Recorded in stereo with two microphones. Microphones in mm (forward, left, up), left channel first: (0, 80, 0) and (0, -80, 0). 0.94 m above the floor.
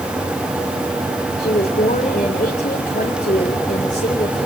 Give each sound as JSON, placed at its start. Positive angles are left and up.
{"t": 1.4, "sound": "a woman speaking", "side_deg": 50, "distance_m": 4.0}